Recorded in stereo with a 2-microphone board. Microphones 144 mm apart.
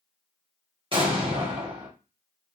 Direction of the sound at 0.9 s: 40° right (ahead or behind).